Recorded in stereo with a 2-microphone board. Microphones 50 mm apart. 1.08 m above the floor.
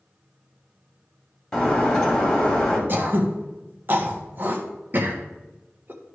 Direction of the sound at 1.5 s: 15° left (ahead or behind).